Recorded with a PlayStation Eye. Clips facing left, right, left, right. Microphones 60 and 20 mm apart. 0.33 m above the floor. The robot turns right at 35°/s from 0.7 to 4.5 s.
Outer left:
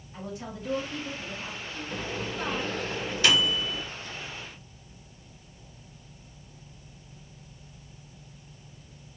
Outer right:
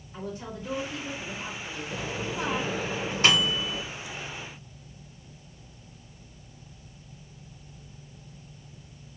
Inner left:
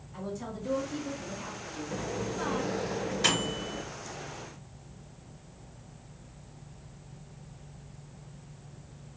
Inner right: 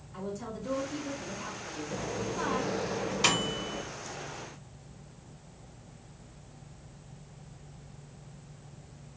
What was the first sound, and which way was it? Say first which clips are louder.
A woman speaking: outer right 1 dB, even; 170° left.